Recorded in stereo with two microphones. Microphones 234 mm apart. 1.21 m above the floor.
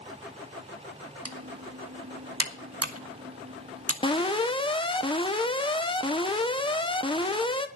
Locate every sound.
1.2 s typing on a keyboard: 85° right, 1.7 m
4.0 s an alarm: 20° left (ahead or behind), 1.3 m